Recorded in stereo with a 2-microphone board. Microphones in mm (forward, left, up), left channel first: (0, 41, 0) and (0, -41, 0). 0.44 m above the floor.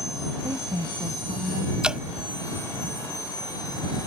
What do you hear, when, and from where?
0.4 s a woman speaking: 65° right (ahead or behind)
1.8 s dripping: 10° right (ahead or behind)